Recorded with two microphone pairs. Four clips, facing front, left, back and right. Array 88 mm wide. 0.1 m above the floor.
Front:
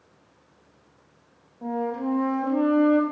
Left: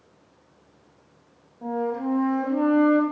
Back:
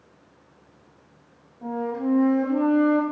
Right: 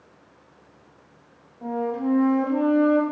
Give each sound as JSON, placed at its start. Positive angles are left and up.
{"t": 1.6, "sound": "a flute", "azimuth_deg": -70, "distance_m": 2.5}